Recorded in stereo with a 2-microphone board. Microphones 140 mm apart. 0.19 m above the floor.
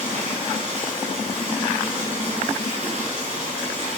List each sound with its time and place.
0.0 s running water: 55° right (ahead or behind), 2.5 m